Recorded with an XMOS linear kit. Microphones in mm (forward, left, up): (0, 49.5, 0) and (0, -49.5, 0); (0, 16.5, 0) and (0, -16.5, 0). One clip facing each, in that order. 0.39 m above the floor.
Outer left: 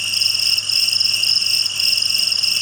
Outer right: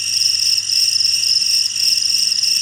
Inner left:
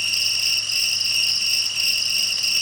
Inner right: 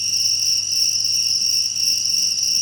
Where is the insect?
55° left (ahead or behind), 1.0 m.